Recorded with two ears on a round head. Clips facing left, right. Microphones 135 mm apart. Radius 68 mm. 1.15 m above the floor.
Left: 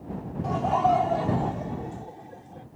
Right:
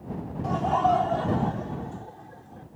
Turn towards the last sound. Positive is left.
turn(degrees=25)  # may be behind; listen again after turning